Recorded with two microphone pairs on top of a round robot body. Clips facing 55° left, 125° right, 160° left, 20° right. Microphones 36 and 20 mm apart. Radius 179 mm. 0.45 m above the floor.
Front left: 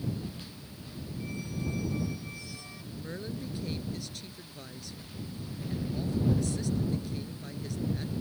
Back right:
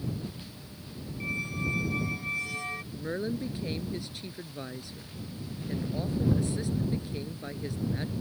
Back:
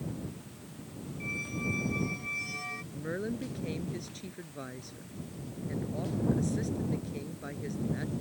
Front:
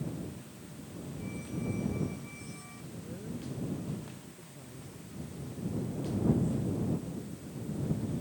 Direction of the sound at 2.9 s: 170° left.